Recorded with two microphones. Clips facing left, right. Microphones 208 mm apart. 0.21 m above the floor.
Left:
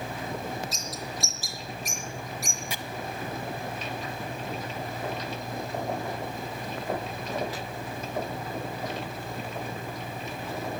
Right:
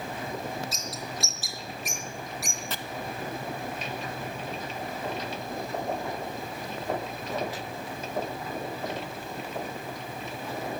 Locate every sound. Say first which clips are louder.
0.7 s a bird: even; centre (ahead or behind), 2.5 m
2.7 s chopping: right 1 dB; 10° left (ahead or behind), 0.6 m